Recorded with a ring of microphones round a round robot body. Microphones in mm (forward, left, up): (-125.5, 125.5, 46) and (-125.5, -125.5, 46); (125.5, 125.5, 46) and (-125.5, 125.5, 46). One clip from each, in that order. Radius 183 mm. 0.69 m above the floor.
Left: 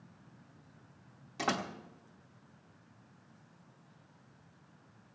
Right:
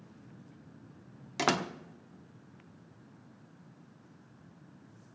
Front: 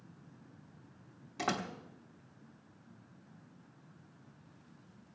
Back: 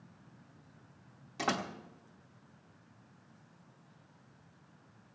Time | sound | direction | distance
1.4 | a door slam | 90° right | 1.0 m